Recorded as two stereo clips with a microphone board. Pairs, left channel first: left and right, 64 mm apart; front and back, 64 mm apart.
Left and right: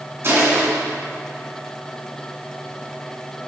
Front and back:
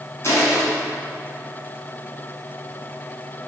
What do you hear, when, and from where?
0.2 s crushing: 45° right, 1.8 m